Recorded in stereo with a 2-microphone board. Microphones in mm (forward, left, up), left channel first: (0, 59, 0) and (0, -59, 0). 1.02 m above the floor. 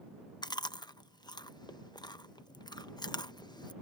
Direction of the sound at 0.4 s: 40° left (ahead or behind).